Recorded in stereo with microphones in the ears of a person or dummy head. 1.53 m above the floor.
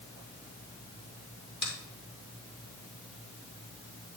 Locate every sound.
1.6 s a finger snap: 35° left (ahead or behind), 3 m